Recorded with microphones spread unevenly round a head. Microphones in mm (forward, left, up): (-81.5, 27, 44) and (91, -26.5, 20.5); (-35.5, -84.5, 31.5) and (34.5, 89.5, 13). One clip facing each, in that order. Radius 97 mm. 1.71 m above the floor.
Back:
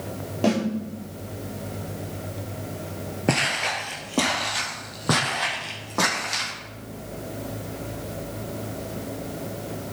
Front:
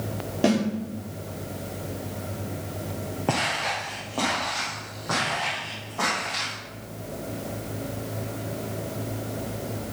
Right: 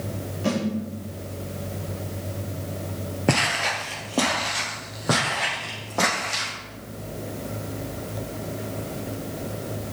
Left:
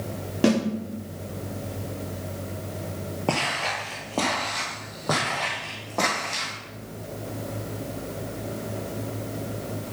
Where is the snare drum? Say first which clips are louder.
Front 1 dB, left 5 dB; 65° left, 3.5 m.